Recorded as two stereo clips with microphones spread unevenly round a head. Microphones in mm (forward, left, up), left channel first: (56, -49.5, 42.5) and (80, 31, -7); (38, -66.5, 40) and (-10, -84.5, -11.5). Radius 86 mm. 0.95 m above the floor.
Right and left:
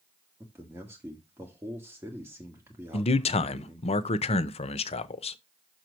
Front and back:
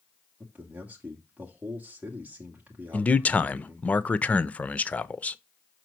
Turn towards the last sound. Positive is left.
turn(degrees=-105)